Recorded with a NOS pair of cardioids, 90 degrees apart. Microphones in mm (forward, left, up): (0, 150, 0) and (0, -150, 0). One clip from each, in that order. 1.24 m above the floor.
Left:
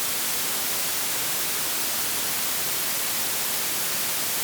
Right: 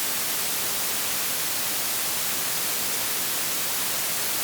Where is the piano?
I don't hear a piano.